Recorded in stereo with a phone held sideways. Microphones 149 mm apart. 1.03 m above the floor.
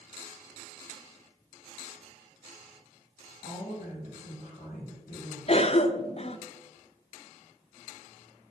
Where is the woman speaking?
70° left (ahead or behind), 3 m.